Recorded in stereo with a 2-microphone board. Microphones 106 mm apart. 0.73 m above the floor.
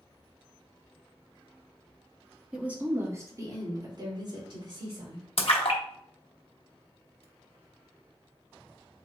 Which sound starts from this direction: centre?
A woman speaking, at 2.5 s.